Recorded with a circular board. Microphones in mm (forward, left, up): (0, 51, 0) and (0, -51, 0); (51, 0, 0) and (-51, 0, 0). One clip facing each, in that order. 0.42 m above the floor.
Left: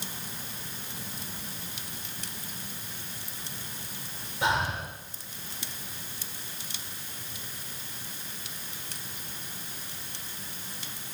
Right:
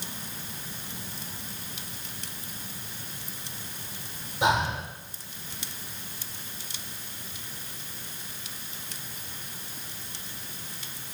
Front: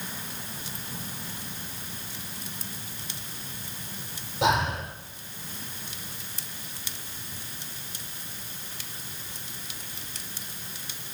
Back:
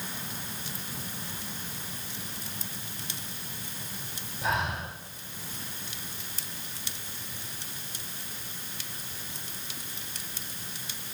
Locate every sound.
4.4 s breathing: 15° right, 9.5 m